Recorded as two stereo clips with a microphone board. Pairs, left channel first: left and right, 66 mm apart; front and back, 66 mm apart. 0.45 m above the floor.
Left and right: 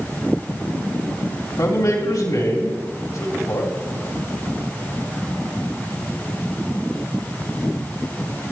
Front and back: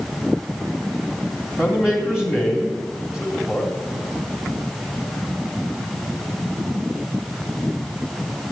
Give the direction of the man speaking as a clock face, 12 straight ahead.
9 o'clock.